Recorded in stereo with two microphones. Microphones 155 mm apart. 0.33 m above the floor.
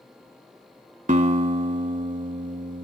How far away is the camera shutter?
No camera shutter in this recording.